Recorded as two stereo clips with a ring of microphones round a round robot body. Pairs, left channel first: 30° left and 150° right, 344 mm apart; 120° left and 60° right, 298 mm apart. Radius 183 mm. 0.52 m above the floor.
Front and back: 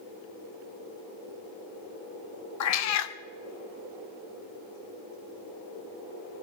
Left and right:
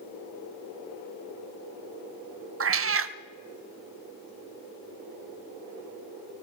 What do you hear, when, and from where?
2.6 s a cat meowing: 15° right, 0.7 m